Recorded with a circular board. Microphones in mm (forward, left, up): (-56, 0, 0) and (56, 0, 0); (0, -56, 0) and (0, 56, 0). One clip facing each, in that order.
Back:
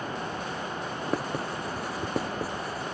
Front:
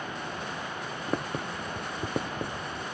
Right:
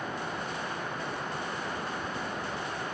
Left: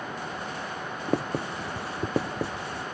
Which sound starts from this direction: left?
Writing, at 1.1 s.